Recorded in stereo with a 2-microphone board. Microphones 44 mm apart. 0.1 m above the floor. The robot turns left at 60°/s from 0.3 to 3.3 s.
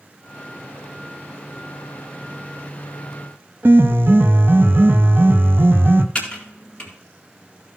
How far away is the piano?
About 0.8 m.